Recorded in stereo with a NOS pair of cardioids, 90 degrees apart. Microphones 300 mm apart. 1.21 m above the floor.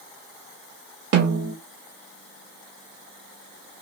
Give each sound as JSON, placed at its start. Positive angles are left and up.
{"t": 1.1, "sound": "a snare drum", "azimuth_deg": -55, "distance_m": 1.7}